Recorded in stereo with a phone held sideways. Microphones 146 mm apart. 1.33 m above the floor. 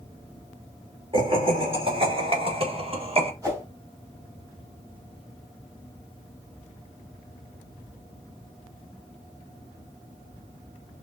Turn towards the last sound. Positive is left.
turn(degrees=-25)  # may be behind; listen again after turning